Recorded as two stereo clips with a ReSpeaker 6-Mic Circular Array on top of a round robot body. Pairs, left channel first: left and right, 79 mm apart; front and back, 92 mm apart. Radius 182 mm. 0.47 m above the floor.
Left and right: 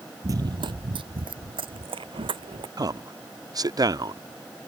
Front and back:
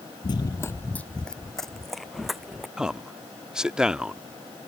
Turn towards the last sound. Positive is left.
turn(degrees=-100)